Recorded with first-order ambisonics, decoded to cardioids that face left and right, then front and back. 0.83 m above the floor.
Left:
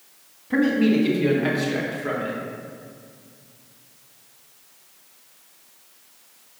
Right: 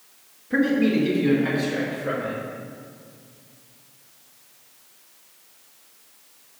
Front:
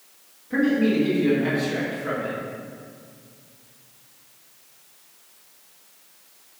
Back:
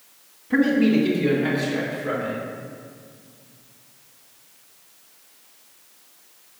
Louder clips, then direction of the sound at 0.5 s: Left 1 dB, back 2 dB; 130° left.